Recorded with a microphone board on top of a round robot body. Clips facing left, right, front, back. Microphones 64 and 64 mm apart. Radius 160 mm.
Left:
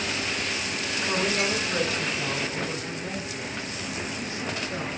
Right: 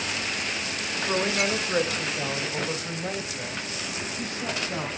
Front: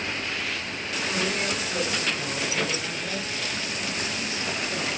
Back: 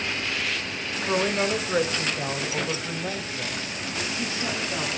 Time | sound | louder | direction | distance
1.1 | a woman speaking | right 1 dB, back 5 dB | 160° right | 2.5 m